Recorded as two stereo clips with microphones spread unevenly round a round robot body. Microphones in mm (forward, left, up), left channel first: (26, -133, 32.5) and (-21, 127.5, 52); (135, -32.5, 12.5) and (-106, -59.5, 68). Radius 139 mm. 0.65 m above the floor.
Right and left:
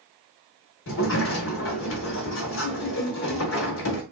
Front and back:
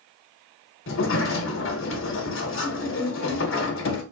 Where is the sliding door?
35° right, 1.1 m.